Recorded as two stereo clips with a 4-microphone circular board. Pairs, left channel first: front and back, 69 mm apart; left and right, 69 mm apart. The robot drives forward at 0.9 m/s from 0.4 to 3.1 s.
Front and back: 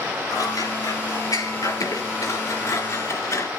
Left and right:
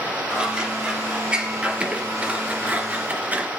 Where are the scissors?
15° right, 4.5 m; by 3.5 s 25° right, 2.5 m.